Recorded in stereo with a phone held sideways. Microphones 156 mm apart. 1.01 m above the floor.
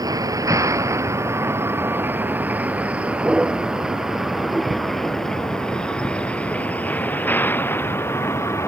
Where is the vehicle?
20° right (ahead or behind); by 8.7 s 15° left (ahead or behind).